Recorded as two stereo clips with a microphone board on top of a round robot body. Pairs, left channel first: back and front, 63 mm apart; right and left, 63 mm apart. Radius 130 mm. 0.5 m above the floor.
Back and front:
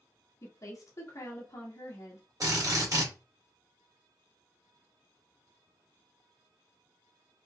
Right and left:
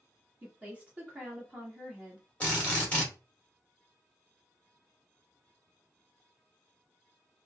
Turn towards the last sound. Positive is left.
turn(degrees=-25)